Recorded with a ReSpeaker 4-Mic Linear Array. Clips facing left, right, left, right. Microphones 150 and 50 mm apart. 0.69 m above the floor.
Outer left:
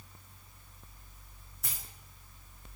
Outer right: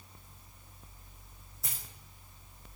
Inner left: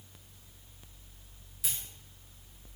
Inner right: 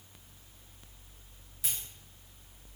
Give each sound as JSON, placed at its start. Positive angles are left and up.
{"t": 1.6, "sound": "a dropped coin", "side_deg": 0, "distance_m": 5.0}